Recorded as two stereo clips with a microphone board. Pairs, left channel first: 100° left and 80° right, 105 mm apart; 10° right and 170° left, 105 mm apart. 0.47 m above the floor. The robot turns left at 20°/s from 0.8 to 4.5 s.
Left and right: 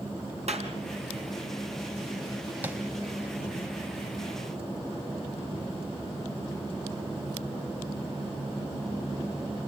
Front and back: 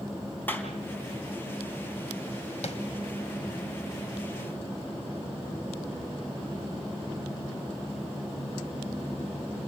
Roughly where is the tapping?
Ahead.